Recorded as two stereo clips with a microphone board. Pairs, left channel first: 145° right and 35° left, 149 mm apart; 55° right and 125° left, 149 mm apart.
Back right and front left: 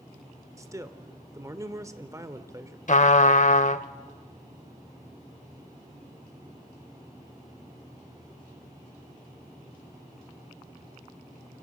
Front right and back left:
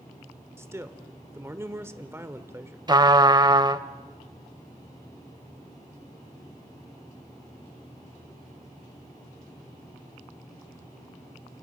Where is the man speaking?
75° left, 1.2 m.